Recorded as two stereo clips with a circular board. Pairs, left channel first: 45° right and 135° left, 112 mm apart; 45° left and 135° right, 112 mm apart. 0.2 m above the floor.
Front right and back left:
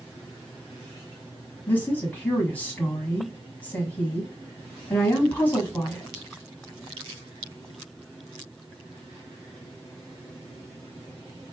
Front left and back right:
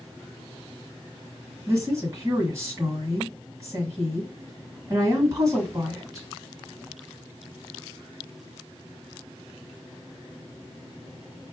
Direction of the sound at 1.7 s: 105° right.